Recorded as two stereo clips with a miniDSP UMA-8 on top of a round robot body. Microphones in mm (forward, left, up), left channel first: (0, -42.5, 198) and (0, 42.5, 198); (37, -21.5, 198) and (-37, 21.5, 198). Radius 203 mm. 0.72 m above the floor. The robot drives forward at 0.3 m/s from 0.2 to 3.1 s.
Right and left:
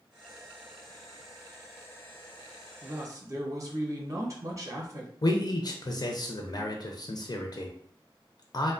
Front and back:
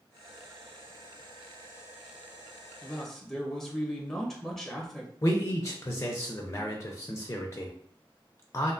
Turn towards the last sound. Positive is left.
turn(degrees=-75)